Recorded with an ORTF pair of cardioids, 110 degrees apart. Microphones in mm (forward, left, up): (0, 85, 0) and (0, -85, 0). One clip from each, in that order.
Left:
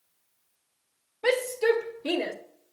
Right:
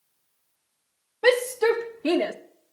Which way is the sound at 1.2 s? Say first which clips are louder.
Right 4 dB; 65° right.